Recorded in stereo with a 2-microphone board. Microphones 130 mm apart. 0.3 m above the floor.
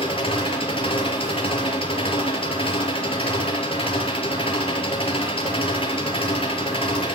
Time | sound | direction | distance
0.0 | an engine running | 45° left (ahead or behind) | 3.5 m